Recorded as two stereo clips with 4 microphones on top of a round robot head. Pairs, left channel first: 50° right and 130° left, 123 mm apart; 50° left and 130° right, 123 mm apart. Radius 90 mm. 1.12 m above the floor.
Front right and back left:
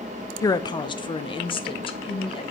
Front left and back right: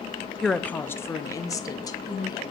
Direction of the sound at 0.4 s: 35° right.